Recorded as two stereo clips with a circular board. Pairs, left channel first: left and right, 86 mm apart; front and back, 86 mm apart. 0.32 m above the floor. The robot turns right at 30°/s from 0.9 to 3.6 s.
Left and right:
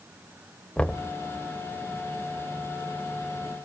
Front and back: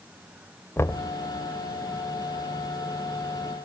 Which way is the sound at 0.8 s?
25° left.